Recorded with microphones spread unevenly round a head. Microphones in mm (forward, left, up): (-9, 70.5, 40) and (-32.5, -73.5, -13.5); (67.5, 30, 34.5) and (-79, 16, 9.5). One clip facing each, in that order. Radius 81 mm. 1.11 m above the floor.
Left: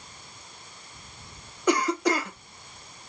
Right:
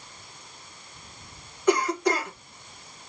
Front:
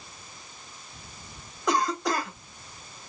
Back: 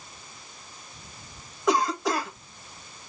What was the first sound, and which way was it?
A cough, 95° left.